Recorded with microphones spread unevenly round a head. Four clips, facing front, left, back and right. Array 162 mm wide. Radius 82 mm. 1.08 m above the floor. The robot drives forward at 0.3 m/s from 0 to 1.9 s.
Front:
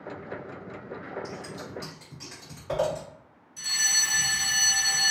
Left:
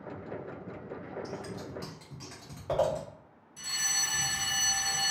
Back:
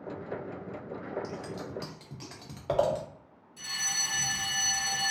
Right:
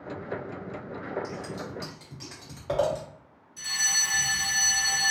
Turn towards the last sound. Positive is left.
turn(degrees=110)